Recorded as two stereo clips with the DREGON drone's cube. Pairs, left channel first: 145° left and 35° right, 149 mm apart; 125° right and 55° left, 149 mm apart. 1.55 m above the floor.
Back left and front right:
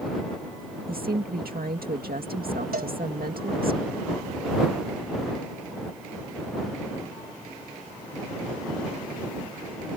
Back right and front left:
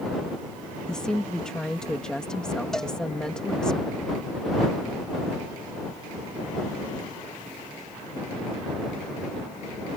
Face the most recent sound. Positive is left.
turn(degrees=-40)